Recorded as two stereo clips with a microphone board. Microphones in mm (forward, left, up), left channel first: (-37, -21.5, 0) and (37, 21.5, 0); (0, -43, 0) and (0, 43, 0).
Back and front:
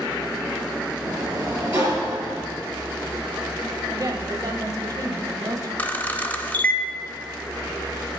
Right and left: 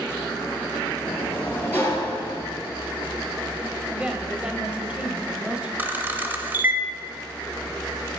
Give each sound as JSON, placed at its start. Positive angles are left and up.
{"t": 1.0, "sound": "a sliding door", "azimuth_deg": -20, "distance_m": 3.0}
{"t": 3.9, "sound": "a woman speaking", "azimuth_deg": 20, "distance_m": 1.3}
{"t": 5.8, "sound": "a camera shutter", "azimuth_deg": 145, "distance_m": 0.8}